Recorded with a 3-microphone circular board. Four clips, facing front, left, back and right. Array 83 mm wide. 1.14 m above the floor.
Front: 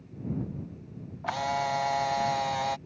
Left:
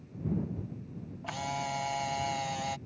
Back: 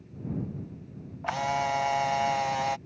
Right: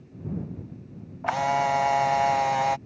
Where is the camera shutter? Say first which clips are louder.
Right 12 dB, back 1 dB; 85° right.